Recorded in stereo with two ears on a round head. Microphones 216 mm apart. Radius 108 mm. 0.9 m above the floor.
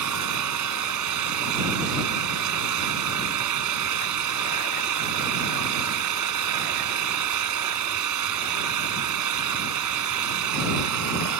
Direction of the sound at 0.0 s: 85° right.